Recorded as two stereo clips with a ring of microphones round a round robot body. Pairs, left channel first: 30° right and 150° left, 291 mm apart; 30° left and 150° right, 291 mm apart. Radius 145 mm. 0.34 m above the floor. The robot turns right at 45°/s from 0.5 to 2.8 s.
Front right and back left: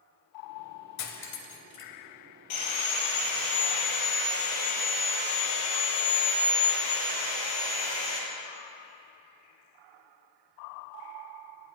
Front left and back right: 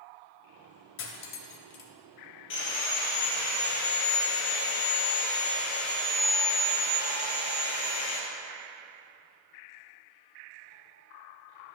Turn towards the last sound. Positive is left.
turn(degrees=-10)